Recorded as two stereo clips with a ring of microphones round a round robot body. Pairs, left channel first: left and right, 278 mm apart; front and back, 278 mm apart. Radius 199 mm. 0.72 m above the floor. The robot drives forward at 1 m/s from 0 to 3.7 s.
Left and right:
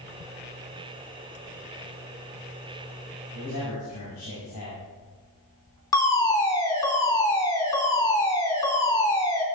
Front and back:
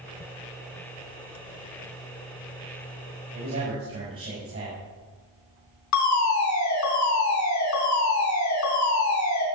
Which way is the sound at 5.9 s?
15° left.